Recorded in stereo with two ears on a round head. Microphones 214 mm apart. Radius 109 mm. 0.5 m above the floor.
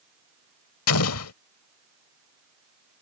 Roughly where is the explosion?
Left.